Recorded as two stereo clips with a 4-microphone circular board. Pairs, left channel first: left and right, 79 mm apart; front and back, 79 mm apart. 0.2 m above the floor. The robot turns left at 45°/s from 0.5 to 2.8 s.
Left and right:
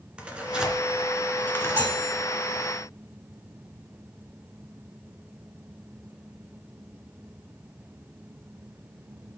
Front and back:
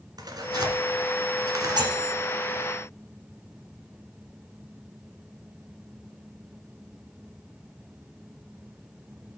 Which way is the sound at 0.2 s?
165° right.